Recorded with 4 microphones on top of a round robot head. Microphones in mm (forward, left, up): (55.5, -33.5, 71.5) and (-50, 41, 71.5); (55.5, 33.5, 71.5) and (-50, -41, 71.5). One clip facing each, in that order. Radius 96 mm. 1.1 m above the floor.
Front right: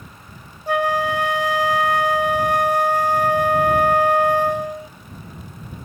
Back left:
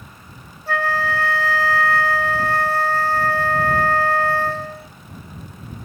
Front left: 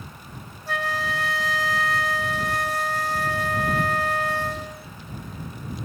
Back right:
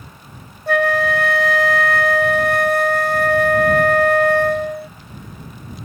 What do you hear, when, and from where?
0.7 s a flute: 110° right